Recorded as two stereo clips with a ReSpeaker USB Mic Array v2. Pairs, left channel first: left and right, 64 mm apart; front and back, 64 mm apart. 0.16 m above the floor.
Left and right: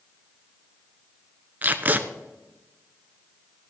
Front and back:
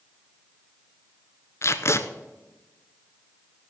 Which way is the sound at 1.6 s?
35° right.